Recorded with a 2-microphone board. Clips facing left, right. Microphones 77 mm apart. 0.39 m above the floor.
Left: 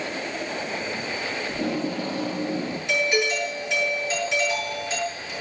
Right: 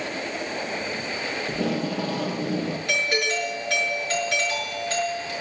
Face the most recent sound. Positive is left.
turn(degrees=-60)  # may be behind; listen again after turning